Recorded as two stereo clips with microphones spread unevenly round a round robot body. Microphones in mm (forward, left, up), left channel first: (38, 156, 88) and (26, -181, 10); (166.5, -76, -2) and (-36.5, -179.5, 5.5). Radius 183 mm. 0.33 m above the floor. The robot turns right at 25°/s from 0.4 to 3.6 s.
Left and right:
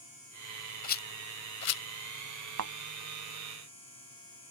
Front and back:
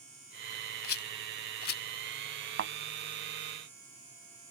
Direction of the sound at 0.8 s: 20° left.